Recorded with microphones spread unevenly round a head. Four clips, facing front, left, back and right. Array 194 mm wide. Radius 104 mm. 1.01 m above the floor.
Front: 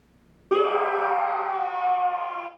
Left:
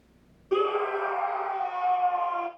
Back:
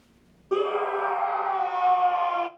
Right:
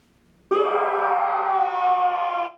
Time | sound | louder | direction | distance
0.5 | a scream | right 5 dB, front 3 dB | 65° right | 1.3 m